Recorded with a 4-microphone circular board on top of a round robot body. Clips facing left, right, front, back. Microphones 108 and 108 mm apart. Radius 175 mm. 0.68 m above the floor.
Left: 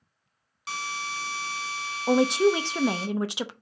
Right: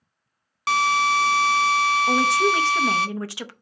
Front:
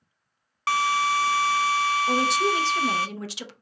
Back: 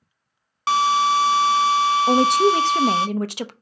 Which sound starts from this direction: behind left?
A woman speaking, at 2.1 s.